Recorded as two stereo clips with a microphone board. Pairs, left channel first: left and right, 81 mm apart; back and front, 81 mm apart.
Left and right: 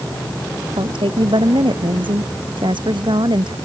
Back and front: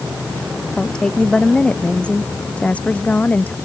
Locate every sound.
0.8 s a woman speaking: 100° right; by 3.5 s 110° right